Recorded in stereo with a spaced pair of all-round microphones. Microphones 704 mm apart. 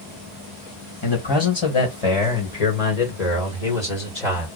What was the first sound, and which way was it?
A man speaking, 35° left (ahead or behind).